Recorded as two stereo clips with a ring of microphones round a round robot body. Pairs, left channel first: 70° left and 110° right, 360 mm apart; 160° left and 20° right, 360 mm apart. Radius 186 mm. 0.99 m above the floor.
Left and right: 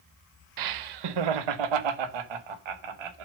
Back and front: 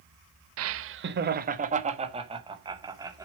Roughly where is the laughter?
Right.